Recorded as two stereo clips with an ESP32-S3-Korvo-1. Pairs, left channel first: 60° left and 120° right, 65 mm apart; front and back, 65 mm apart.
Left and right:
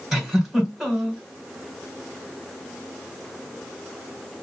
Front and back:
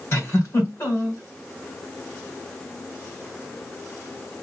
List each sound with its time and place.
0.1 s a giggle: 35° right, 3 m